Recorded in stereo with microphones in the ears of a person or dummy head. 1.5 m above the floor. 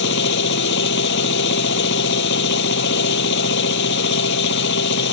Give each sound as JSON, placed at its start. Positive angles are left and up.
{"t": 0.0, "sound": "a machine running", "side_deg": 60}